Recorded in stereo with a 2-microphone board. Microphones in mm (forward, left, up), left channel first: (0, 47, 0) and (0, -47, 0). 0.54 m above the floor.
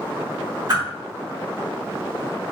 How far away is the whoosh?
About 1.1 m.